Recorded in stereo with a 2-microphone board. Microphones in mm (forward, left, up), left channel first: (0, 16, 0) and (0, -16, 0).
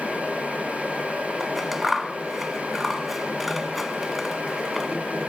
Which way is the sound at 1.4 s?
5° right (ahead or behind).